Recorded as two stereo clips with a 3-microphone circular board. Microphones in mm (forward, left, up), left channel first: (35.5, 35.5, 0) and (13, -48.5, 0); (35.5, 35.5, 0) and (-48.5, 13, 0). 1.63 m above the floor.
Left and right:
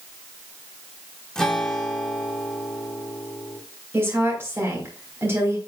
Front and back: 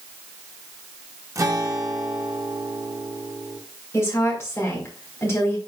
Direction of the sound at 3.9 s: 45° right.